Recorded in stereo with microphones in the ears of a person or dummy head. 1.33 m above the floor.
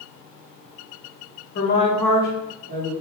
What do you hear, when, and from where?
1.6 s a woman speaking: 50° left (ahead or behind), 0.8 m; by 2.9 s 45° right (ahead or behind), 1.1 m